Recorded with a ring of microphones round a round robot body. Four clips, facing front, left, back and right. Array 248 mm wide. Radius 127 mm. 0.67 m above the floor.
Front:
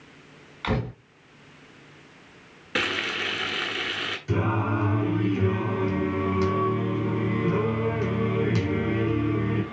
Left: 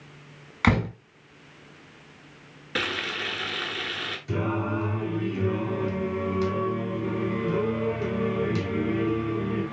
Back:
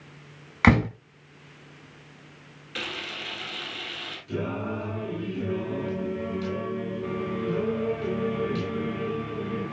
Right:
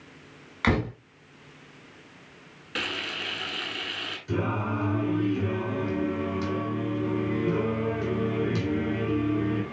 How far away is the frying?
About 1.6 m.